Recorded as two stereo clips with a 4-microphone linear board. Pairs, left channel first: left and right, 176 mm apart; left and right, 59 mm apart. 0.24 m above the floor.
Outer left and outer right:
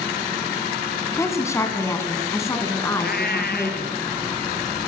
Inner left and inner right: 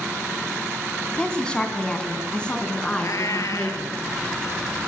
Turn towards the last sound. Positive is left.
turn(degrees=65)  # may be behind; listen again after turning